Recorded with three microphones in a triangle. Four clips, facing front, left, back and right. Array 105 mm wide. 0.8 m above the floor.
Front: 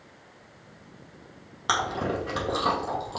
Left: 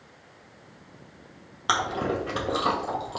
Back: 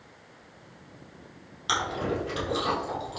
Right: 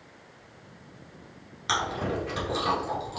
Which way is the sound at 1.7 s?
50° left.